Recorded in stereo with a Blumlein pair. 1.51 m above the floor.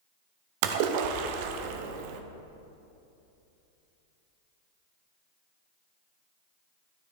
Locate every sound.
0.6 s a splash: 50° right, 0.5 m